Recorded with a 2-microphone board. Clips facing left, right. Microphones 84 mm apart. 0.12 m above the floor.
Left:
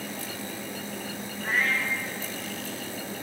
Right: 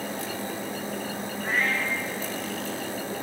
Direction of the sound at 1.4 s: Centre (ahead or behind).